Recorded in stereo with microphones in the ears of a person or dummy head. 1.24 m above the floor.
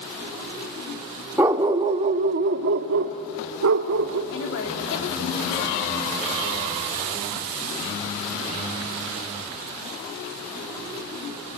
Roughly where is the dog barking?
Centre.